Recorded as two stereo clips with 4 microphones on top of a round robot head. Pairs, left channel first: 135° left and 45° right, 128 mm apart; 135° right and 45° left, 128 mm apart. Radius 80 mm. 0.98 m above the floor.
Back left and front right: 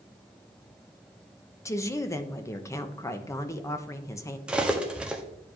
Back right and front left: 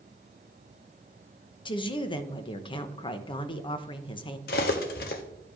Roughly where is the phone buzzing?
I don't hear a phone buzzing.